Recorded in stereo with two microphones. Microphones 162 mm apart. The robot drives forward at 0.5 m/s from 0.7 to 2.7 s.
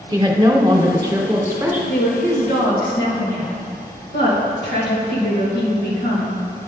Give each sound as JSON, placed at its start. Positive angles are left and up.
{"t": 0.1, "sound": "a woman speaking", "side_deg": -25, "distance_m": 0.9}
{"t": 1.9, "sound": "a woman speaking", "side_deg": 85, "distance_m": 2.0}